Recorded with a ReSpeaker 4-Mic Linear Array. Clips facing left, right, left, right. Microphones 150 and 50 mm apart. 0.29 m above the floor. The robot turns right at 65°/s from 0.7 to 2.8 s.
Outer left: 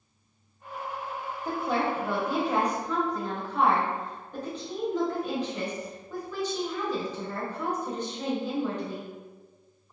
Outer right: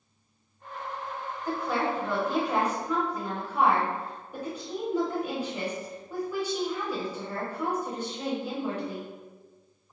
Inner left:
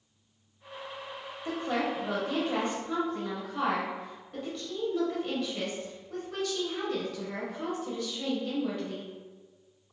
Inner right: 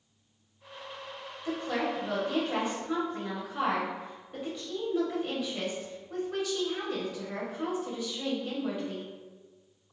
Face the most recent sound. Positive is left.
turn(degrees=-160)